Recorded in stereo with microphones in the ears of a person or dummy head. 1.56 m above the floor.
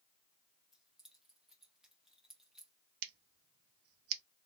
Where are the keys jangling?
Centre (ahead or behind), 0.8 m.